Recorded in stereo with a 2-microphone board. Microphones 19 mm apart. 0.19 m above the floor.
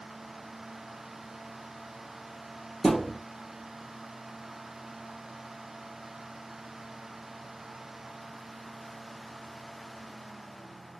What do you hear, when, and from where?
2.8 s a thud: 20° left (ahead or behind), 3 m